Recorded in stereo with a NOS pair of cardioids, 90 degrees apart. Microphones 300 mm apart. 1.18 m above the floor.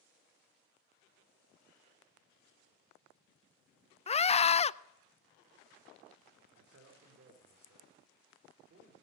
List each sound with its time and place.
4.1 s a scream: 20° left, 0.5 m
6.6 s a man speaking: 50° right, 3 m